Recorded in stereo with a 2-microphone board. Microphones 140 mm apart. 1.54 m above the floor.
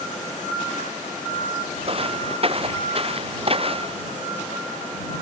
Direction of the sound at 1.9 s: 45° right (ahead or behind).